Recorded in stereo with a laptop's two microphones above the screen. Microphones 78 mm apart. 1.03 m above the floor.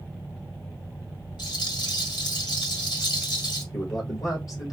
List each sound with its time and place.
1.4 s a rattle: 75° left (ahead or behind), 1.9 m
3.7 s a man speaking: 50° left (ahead or behind), 1.4 m